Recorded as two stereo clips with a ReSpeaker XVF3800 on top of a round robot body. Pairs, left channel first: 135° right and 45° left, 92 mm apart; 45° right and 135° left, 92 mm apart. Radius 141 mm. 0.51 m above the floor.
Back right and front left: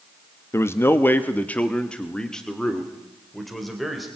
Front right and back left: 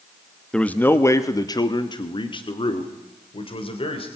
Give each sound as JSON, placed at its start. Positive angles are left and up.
{"t": 0.5, "sound": "a man speaking", "azimuth_deg": -115, "distance_m": 1.2}